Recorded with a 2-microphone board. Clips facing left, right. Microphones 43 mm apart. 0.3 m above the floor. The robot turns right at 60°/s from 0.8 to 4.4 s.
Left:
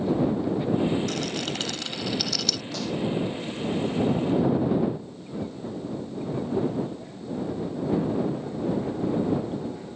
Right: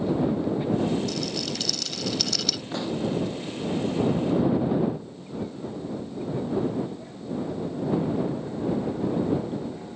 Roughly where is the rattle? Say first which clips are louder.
Left 1 dB; left.